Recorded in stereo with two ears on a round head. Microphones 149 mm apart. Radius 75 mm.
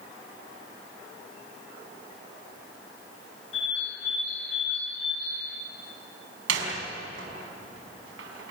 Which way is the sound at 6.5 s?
85° right.